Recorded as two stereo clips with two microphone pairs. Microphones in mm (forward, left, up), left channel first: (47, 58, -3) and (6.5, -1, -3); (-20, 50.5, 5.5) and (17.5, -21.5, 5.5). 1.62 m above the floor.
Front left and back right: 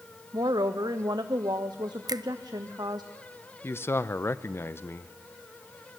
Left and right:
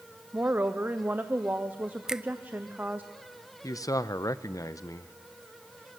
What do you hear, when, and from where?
0.3 s a woman speaking: 130° right, 0.9 m
2.1 s a finger snap: 145° right, 0.6 m
3.6 s a man speaking: 95° left, 0.8 m